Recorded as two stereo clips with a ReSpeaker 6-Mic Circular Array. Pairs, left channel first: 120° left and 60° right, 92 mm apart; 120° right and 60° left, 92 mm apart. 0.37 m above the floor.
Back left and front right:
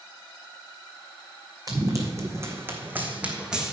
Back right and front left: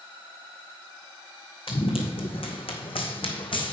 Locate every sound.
1.7 s running footsteps: 110° right, 1.7 m; by 3.7 s 145° right, 1.4 m